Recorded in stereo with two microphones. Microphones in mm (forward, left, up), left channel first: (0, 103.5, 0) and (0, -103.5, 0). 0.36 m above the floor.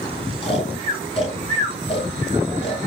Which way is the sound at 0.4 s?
30° left (ahead or behind).